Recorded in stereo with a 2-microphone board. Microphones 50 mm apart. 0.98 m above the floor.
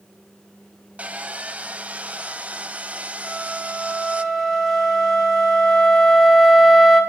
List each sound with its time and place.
1.0 s sawing: 25° right (ahead or behind), 0.8 m
3.2 s a flute: 10° left (ahead or behind), 4.5 m